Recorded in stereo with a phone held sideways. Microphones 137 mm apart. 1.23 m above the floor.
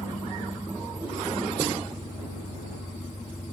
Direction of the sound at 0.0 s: 60° left (ahead or behind).